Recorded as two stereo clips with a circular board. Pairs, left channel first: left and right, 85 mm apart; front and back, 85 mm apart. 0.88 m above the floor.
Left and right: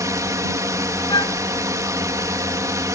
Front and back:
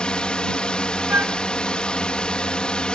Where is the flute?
115° left.